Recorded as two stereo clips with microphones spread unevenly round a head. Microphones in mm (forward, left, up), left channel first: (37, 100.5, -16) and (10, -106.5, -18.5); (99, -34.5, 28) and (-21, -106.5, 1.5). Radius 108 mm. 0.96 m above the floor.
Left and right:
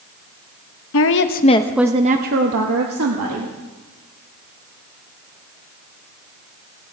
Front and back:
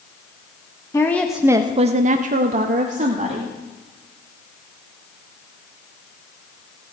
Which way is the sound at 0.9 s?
110° left.